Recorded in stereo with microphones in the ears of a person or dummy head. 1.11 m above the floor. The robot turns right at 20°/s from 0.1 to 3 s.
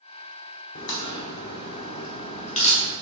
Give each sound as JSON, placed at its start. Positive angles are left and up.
{"t": 0.8, "sound": "a crack", "side_deg": 60, "distance_m": 0.9}